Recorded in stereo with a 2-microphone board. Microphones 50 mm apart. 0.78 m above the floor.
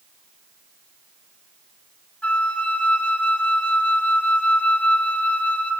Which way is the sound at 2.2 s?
25° left (ahead or behind).